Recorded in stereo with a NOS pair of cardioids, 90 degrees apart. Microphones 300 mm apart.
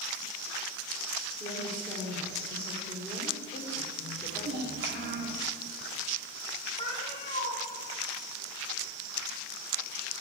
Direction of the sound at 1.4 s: 20° left.